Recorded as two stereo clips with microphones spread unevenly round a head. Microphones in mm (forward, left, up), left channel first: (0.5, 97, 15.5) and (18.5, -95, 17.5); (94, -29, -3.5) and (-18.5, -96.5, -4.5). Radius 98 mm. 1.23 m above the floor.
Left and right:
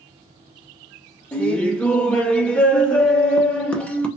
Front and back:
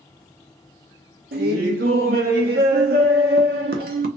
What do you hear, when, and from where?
1.3 s laughter: straight behind, 0.6 m